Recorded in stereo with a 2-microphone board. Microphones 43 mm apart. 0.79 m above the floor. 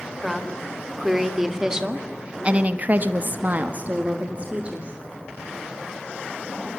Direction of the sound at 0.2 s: 5° right (ahead or behind).